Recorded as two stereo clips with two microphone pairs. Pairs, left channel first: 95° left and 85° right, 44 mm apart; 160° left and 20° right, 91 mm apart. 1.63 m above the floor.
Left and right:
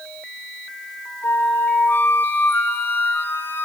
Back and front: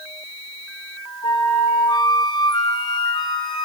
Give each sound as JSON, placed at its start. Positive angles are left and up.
{"t": 1.2, "sound": "a flute", "azimuth_deg": 125, "distance_m": 4.5}